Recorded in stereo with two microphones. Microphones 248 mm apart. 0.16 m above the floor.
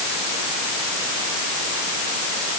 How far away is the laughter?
I don't hear laughter.